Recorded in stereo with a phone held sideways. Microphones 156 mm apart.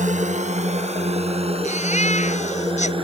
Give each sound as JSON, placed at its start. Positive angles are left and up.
{"t": 0.0, "sound": "a drone", "side_deg": -50}
{"t": 1.6, "sound": "a baby crying", "side_deg": 50}